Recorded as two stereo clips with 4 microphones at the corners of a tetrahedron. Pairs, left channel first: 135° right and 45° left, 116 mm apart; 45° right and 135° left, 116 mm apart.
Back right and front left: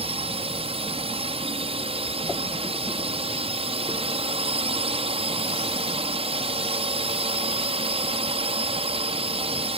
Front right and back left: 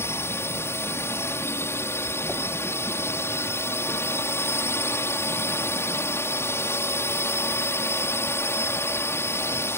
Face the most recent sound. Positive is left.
turn(degrees=20)